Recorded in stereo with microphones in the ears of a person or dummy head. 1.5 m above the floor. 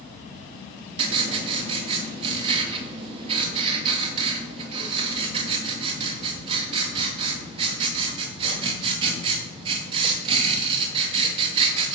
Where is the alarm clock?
No alarm clock in this recording.